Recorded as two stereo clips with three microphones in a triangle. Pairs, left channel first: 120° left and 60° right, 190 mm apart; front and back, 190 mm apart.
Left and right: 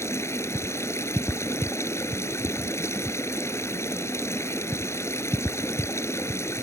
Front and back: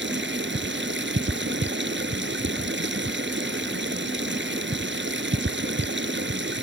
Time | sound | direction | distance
0.0 | running water | 165° right | ?